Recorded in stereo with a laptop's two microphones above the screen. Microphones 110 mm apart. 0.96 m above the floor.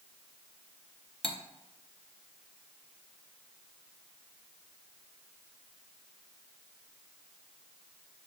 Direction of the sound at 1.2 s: 50° left (ahead or behind).